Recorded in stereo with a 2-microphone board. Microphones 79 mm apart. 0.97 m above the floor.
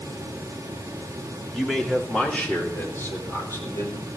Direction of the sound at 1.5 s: Centre (ahead or behind).